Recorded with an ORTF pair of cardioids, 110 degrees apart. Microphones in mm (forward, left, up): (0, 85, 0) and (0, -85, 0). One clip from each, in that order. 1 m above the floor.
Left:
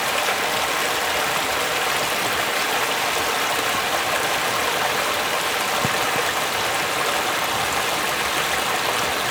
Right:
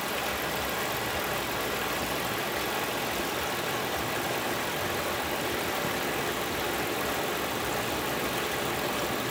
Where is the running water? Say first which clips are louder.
Left 9 dB; 55° left, 0.9 m.